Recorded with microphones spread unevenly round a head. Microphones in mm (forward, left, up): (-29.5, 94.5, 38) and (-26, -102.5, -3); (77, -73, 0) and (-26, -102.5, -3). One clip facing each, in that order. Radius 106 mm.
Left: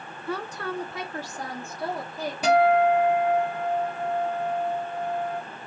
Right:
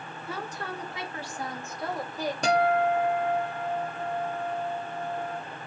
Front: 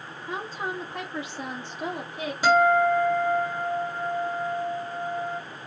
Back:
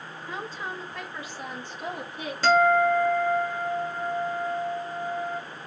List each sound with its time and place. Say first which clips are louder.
0.3 s a woman speaking: left 5 dB, front 3 dB; 90° left, 0.8 m; by 2.3 s 25° left, 1.6 m
2.4 s a guitar: left 5 dB, even; 65° left, 1.2 m